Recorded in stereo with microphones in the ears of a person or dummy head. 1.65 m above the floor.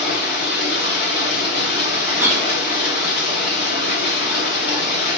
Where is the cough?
15° right (ahead or behind), 1.2 m.